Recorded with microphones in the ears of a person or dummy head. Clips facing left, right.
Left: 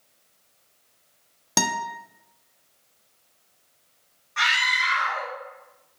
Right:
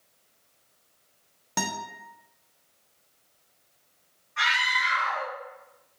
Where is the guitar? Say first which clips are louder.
Left 5 dB; 65° left (ahead or behind), 0.5 m.